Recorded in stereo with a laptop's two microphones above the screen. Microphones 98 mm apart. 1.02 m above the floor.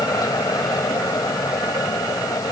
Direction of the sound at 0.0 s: 40° left (ahead or behind).